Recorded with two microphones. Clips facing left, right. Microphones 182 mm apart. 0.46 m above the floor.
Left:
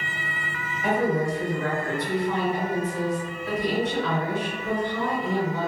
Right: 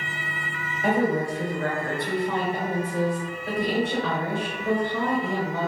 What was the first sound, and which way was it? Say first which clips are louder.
A woman speaking: right 1 dB; 30° right (ahead or behind).